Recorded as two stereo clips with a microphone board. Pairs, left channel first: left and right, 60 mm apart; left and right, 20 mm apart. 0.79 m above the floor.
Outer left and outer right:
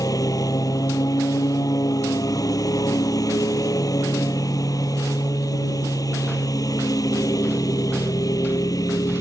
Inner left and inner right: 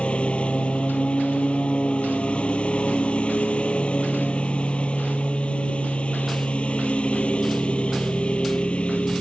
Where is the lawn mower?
80° left.